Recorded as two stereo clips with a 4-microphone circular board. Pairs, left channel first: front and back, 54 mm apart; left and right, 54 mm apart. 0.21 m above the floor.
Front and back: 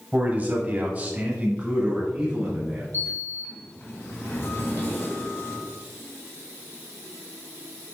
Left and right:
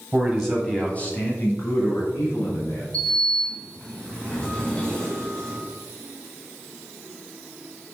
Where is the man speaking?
150° right, 1.4 m; by 2.8 s 105° left, 3 m.